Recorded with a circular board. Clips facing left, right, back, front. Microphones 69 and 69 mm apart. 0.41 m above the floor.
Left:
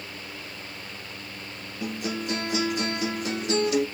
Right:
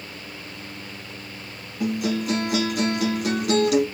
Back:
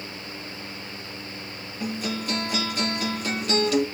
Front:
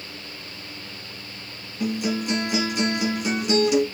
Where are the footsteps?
No footsteps in this recording.